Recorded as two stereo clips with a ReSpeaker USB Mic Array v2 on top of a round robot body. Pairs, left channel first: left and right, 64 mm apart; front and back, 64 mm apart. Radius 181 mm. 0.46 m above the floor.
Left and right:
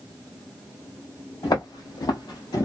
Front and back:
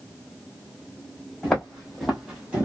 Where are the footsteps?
80° left, 1.8 m; by 2.6 s 115° left, 0.7 m.